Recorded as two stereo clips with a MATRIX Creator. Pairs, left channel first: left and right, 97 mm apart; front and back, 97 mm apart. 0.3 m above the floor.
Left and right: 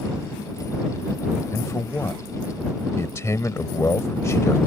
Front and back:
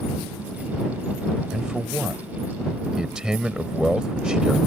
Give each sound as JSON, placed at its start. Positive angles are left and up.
{"t": 1.5, "sound": "a man speaking", "azimuth_deg": 105}